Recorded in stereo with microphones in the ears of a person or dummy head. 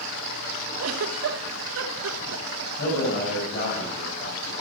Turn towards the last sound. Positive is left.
turn(degrees=50)  # may be behind; listen again after turning